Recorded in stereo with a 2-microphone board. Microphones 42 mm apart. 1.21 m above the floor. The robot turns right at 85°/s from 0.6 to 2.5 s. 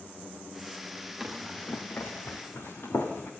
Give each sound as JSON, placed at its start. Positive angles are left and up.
{"t": 1.2, "sound": "running footsteps", "side_deg": -15, "distance_m": 4.0}